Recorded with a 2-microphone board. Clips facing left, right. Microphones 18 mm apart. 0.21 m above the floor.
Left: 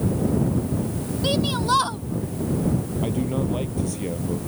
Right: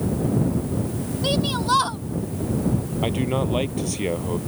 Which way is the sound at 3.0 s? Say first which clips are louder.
Right 3 dB; 40° right (ahead or behind).